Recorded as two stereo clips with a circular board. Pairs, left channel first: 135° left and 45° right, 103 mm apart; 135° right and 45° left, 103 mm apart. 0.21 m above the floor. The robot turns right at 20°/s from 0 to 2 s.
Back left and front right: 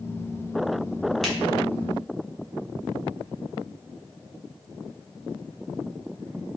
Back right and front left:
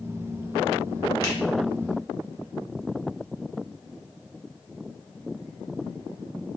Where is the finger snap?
140° right, 1.3 m; by 1.4 s 135° right, 1.3 m.